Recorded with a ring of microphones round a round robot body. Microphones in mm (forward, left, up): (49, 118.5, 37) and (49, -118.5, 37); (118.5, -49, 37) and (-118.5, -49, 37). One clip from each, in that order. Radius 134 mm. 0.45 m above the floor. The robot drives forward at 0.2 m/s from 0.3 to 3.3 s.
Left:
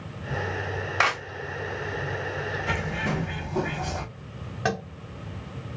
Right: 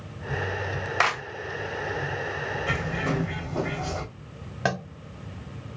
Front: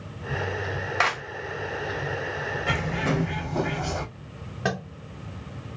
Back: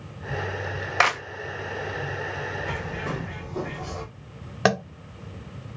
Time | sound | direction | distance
1.0 | a clap | 175° right | 0.5 m
2.7 | a bird | straight ahead | 0.7 m
4.7 | tapping | 165° right | 0.7 m